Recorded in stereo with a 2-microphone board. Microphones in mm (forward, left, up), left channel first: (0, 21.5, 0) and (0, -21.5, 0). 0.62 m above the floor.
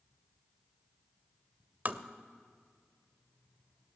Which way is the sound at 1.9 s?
40° right (ahead or behind).